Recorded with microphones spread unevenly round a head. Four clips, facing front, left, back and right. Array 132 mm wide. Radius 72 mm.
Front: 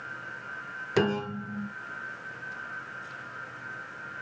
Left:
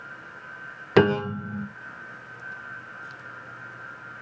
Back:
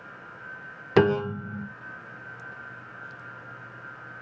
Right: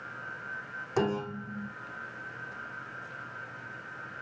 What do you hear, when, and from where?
1.0 s a piano: 95° left, 1.2 m